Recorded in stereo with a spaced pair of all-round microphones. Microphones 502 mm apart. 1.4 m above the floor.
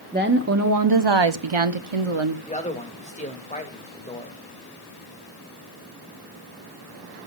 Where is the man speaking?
15° left (ahead or behind), 2.5 m.